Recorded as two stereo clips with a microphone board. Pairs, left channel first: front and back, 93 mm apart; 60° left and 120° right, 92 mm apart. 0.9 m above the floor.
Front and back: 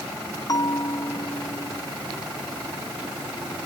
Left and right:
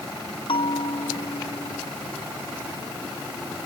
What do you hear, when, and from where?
0.5 s a bell: 45° left